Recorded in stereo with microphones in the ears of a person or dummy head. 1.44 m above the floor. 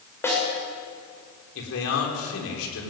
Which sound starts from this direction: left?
A man speaking, at 1.6 s.